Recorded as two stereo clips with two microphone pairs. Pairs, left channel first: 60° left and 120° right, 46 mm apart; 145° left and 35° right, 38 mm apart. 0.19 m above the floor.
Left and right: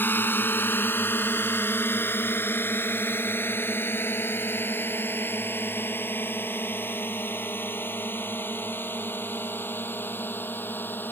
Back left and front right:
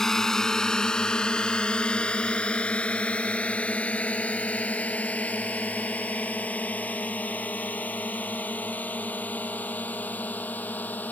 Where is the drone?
70° left; by 11.1 s 105° left.